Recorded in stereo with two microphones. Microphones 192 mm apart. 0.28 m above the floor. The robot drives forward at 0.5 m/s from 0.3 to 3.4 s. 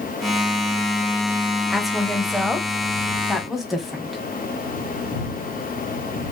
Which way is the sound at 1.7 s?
Centre (ahead or behind).